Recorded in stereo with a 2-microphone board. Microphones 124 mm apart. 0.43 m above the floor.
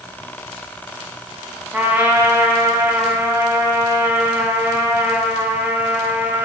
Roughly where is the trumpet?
Centre.